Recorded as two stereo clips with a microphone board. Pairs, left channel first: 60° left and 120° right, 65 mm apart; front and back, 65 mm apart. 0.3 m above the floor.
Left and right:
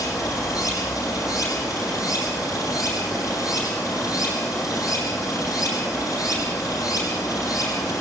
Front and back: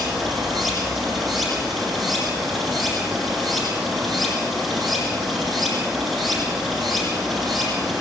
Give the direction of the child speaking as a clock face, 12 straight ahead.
No child speaking in this recording.